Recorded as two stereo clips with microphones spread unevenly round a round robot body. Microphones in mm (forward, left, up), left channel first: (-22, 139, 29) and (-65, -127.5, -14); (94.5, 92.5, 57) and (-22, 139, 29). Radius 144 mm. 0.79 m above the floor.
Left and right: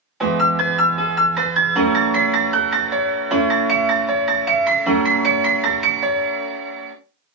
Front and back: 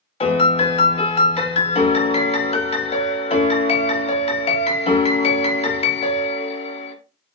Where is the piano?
5° right, 0.9 m.